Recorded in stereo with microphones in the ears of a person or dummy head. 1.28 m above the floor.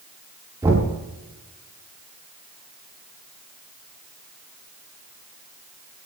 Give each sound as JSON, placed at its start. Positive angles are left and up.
{"t": 0.6, "sound": "knocking", "side_deg": -15, "distance_m": 7.0}